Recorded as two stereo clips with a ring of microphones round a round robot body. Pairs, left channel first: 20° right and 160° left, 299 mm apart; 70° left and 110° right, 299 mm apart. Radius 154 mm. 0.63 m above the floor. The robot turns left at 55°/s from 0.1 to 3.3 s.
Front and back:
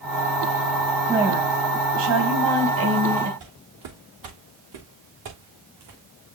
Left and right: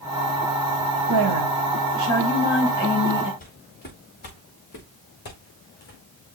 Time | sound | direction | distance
1.1 | a woman speaking | 115° right | 4.5 m
3.4 | footsteps | 130° left | 4.5 m